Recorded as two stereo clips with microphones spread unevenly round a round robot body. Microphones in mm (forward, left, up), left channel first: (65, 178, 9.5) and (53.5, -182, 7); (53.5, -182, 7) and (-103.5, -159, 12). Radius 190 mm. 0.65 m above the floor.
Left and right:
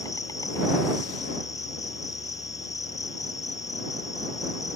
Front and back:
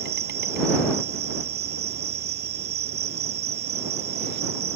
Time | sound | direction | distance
0.0 | an insect | 170° left | ?